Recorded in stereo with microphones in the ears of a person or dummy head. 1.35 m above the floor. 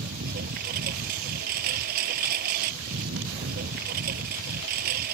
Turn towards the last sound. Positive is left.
turn(degrees=-45)  # may be behind; listen again after turning